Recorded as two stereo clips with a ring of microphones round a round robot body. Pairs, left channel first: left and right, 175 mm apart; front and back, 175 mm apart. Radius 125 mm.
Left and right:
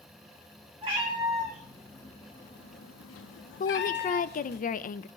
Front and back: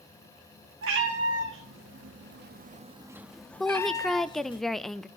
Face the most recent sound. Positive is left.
turn(degrees=90)